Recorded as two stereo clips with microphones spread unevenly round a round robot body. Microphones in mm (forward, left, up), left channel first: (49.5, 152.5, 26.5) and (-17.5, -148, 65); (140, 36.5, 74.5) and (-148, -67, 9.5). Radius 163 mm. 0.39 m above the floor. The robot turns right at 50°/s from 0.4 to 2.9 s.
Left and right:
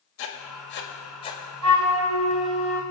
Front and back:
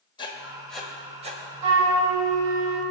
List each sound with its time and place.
0.2 s writing: 100° left, 1.8 m; by 1.4 s 150° left, 1.8 m
1.6 s a flute: 145° right, 2.5 m; by 2.8 s 85° right, 2.5 m